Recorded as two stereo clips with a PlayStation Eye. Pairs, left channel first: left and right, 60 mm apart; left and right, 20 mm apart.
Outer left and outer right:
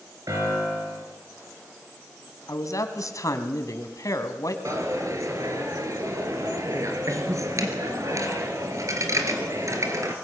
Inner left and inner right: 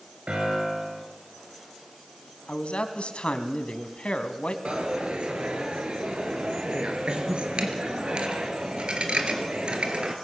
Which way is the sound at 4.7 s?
60° right (ahead or behind).